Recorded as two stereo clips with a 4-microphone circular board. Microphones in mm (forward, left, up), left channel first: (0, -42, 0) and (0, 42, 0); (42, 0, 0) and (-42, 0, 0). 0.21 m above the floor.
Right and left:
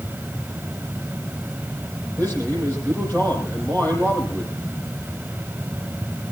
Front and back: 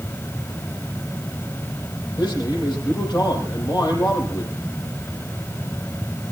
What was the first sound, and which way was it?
A man speaking, 30° right.